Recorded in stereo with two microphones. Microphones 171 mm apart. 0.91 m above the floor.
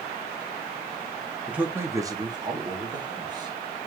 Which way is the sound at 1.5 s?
5° right (ahead or behind).